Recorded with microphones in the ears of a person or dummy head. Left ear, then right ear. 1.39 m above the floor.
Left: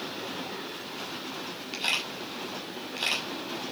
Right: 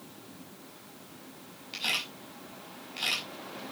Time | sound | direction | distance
1.7 | a camera shutter | 15° left (ahead or behind) | 5.5 m